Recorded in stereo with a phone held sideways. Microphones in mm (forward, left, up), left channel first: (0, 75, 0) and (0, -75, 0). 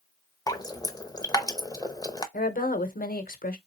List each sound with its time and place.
0.5 s dripping: 25° left (ahead or behind), 0.6 m
2.3 s a woman speaking: 75° left (ahead or behind), 0.9 m